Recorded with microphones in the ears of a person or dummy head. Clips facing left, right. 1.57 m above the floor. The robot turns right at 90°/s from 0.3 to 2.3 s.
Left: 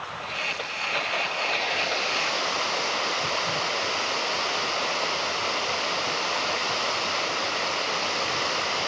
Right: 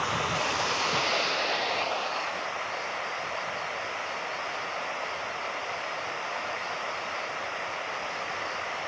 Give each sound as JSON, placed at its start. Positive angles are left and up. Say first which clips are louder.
{"t": 0.0, "sound": "running water", "louder": "right 6 dB", "azimuth_deg": -120}